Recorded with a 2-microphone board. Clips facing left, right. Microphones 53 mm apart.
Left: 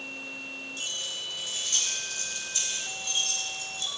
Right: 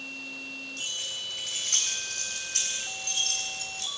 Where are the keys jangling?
55° right (ahead or behind), 4.5 m; by 3.9 s 65° right (ahead or behind), 2.5 m.